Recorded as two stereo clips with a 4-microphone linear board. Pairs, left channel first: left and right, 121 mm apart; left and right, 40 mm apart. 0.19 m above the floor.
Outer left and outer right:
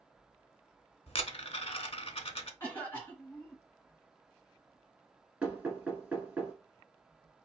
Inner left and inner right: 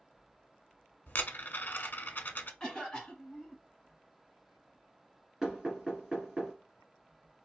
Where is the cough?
20° left (ahead or behind), 1.8 m.